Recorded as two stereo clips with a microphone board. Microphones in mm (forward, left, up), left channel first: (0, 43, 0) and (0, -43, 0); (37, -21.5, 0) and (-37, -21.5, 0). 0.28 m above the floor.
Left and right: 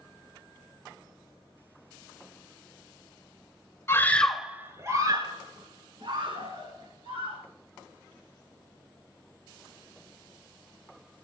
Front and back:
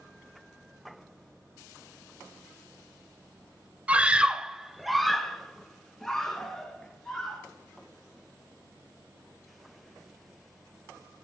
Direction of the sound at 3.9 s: 120° left.